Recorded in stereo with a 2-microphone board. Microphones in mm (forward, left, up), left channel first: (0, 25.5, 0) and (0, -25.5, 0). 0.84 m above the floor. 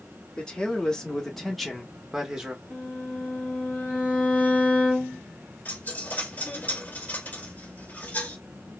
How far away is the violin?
About 2.5 m.